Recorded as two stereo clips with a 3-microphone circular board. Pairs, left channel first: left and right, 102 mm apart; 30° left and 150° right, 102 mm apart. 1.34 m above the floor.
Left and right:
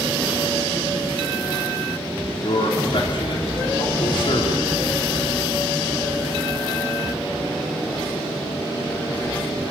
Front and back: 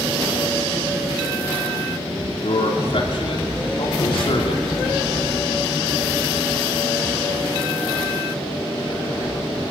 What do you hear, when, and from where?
2.4 s a man speaking: 55° left, 4 m